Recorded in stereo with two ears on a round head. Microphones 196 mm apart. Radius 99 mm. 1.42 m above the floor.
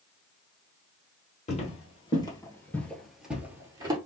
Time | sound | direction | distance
1.5 | footsteps | 30° left (ahead or behind) | 1.9 m